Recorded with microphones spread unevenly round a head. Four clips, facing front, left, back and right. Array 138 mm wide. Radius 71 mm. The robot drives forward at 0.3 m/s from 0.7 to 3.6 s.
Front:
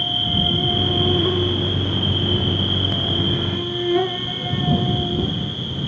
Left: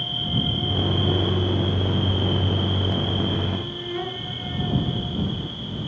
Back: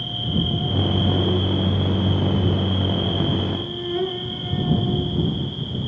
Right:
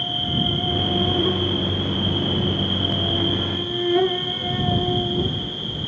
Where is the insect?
45° right, 4.5 m; by 5.9 s 55° right, 4 m.